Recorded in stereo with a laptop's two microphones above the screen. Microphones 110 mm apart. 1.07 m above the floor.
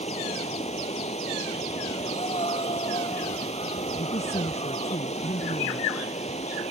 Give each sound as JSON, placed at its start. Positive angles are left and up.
{"t": 0.0, "sound": "running water", "side_deg": 80}
{"t": 2.0, "sound": "breathing", "side_deg": 65}
{"t": 4.0, "sound": "a man speaking", "side_deg": 90}